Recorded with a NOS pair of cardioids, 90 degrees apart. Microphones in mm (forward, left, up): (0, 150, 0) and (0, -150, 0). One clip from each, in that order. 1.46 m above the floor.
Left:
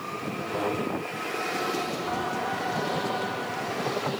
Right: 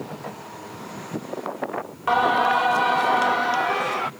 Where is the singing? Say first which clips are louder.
Right 16 dB; 55° right.